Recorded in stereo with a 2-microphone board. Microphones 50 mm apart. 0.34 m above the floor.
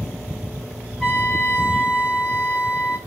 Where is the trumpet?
10° left (ahead or behind), 1.2 m.